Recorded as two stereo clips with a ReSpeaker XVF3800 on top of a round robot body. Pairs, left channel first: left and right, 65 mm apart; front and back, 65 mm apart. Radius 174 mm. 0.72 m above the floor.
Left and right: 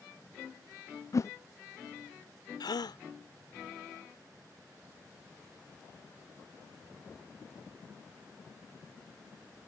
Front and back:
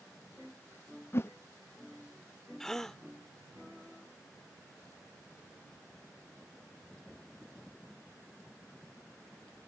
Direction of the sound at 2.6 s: 80° left.